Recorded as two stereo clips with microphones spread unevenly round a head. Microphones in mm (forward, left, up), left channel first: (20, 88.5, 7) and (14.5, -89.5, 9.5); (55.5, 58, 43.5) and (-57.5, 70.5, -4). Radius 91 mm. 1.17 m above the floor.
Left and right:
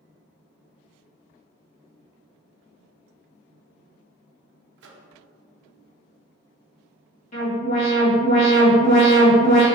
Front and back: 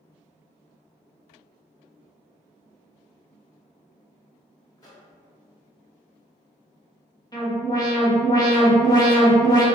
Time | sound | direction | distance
4.8 | a microwave | 70° right | 0.6 m
7.3 | an alarm | 60° left | 1.9 m